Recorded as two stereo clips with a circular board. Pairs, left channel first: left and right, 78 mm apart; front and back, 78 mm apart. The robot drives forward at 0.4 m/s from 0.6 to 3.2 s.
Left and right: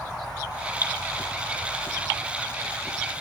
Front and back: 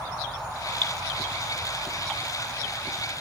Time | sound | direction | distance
0.8 | dripping | 70° left | 4 m